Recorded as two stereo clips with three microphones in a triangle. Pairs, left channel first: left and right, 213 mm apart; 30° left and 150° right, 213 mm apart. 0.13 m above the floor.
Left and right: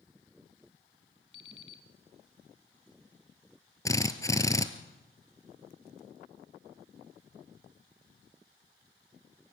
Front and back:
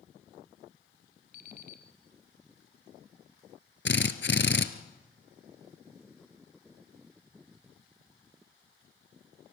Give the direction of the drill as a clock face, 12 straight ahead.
11 o'clock.